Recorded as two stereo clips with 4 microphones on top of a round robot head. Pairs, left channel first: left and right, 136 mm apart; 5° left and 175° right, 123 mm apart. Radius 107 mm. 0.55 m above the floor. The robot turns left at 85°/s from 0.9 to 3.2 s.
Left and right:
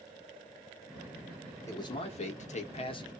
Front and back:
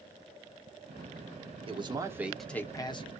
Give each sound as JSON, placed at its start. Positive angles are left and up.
{"t": 1.7, "sound": "a man speaking", "azimuth_deg": 155, "distance_m": 1.0}